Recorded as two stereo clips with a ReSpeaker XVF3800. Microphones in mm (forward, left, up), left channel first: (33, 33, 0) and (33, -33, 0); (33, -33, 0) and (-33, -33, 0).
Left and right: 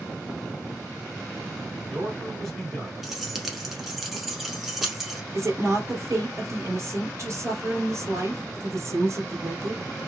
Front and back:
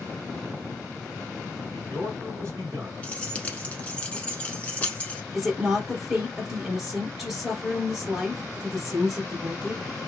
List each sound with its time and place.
1.6 s a man speaking: 170° left, 2 m
3.0 s keys jangling: 10° right, 0.8 m
5.3 s a woman speaking: 95° right, 2 m